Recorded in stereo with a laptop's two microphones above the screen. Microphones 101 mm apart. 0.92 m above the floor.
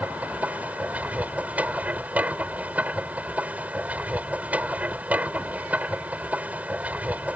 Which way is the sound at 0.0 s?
15° right (ahead or behind).